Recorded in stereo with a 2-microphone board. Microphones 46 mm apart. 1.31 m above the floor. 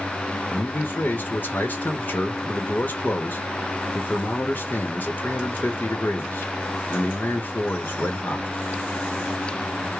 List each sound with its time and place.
0.5 s a man speaking: 40° left (ahead or behind), 0.9 m